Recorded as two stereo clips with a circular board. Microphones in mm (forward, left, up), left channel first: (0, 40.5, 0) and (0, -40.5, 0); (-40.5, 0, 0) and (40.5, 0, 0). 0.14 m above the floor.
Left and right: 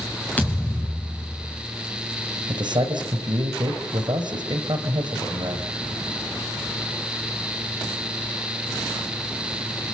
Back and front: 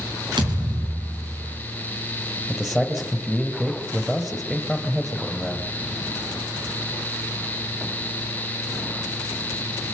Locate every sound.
0.4 s a thud: 20° left, 4 m
2.5 s a man speaking: 85° right, 3 m